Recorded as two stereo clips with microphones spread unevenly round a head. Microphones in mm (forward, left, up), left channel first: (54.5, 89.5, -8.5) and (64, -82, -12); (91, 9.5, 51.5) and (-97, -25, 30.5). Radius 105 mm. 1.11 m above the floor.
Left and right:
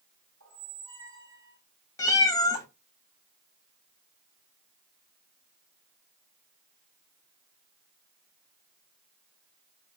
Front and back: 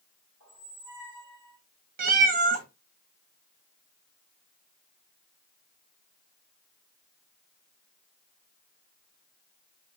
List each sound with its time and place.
0.4 s a squeak: 125° right, 3 m
2.0 s a cat meowing: 155° left, 0.5 m